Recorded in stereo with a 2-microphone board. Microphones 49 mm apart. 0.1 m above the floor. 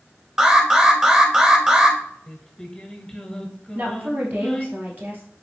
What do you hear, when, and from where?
0.4 s an alarm: 15° right (ahead or behind), 0.9 m
2.3 s singing: 10° left (ahead or behind), 0.8 m
3.8 s a woman speaking: 45° right (ahead or behind), 1.8 m